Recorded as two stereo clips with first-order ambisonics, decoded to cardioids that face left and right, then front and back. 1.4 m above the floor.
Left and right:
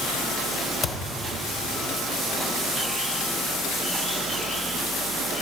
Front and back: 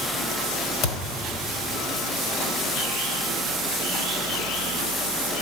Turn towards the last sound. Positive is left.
turn(degrees=20)